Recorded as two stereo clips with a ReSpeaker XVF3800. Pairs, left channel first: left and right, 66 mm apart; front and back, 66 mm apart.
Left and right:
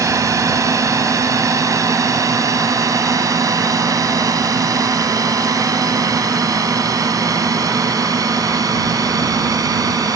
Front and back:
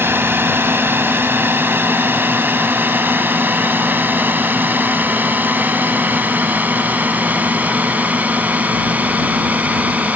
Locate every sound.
0.0 s a drone: 125° right; by 10.2 s 110° right